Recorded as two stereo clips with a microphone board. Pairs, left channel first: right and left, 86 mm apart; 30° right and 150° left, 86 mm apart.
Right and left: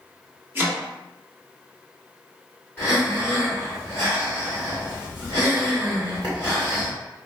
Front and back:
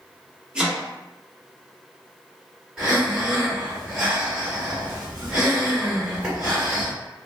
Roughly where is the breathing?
Behind right.